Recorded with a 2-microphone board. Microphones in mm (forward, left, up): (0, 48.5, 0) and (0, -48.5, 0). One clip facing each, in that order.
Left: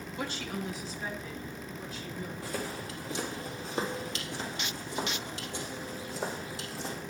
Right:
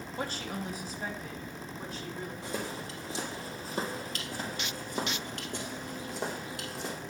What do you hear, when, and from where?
0.2 s a woman speaking: 35° right (ahead or behind), 0.9 m; by 2.3 s 50° right (ahead or behind), 4 m
2.4 s footsteps: 20° right (ahead or behind), 2 m; by 7.0 s 60° right (ahead or behind), 3.5 m